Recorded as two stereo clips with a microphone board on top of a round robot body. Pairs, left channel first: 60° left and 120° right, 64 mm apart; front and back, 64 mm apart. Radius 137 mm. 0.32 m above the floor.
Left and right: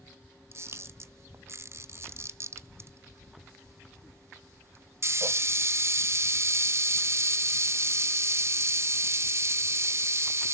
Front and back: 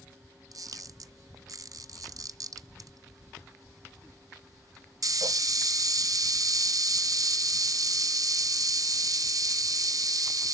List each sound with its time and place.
0.5 s a camera shutter: 165° right, 1.2 m